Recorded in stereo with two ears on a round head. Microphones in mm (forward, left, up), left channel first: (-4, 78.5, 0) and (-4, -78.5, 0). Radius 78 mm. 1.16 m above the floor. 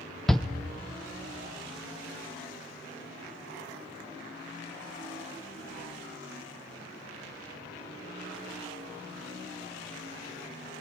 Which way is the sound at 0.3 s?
Centre (ahead or behind).